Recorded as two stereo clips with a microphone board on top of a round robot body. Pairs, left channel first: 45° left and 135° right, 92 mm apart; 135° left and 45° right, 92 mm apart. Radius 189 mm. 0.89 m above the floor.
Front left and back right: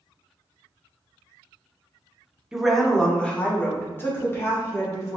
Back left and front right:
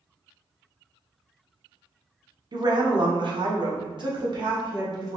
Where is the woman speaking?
50° right, 0.9 m; by 5.2 s 10° right, 1.9 m.